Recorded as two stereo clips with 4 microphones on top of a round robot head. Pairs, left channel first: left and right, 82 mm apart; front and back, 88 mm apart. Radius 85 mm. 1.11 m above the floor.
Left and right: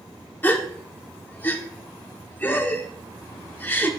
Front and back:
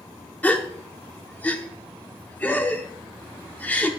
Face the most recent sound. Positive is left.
turn(degrees=50)